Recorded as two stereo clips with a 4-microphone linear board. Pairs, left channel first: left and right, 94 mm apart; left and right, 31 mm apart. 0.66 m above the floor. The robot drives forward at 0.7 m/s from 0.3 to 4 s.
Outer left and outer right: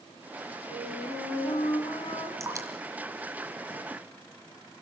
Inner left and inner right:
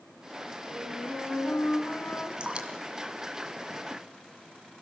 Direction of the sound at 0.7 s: 70° left (ahead or behind).